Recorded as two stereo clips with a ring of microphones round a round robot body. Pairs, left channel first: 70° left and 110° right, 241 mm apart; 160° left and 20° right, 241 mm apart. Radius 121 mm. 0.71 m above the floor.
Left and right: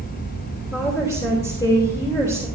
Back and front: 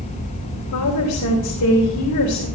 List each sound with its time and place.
0.7 s a woman speaking: 145° left, 3 m